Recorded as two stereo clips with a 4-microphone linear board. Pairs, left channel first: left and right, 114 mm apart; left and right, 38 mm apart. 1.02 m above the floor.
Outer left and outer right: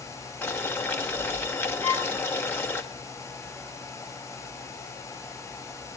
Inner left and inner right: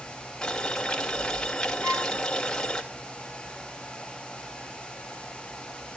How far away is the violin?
About 4.5 m.